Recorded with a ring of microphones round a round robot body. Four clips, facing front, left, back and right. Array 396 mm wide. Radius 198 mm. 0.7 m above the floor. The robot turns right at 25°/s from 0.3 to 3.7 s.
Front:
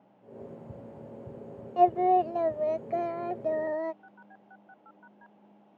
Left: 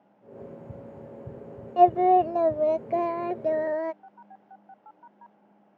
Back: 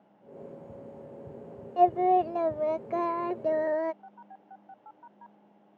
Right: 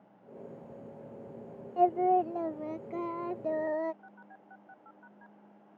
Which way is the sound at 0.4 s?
60° left.